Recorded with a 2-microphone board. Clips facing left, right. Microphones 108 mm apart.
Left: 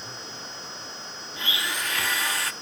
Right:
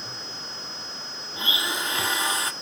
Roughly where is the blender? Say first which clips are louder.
Right 2 dB; right.